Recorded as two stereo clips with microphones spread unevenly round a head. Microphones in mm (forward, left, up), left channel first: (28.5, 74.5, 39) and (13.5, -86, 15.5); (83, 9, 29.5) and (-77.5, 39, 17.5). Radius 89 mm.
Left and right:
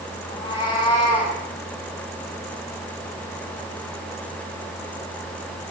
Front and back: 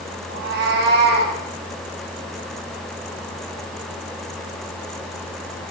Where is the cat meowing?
150° left, 4 m; by 1.4 s 145° left, 5 m.